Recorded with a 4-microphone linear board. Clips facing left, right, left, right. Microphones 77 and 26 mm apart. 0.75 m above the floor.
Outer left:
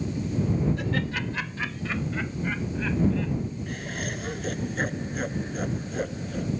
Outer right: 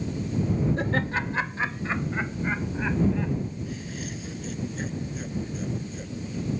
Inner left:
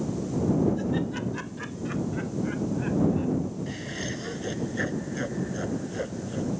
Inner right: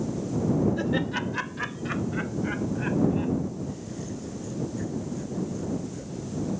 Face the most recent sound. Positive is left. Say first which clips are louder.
# outer left 2 dB, inner left 2 dB
turn(degrees=60)  # may be behind; listen again after turning